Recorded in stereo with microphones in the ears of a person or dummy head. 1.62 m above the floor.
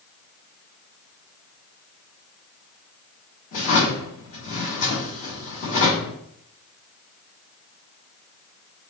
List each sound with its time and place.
3.5 s a drawer: 50° left (ahead or behind), 1.9 m